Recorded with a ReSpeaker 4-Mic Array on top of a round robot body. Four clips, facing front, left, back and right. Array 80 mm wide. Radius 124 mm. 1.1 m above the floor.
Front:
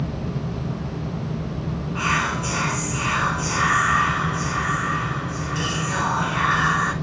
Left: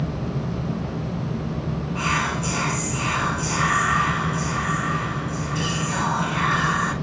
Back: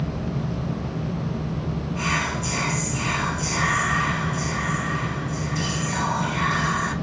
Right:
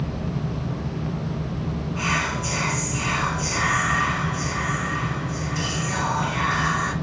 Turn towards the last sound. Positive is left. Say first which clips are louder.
# left 2 dB, front 4 dB
turn(degrees=10)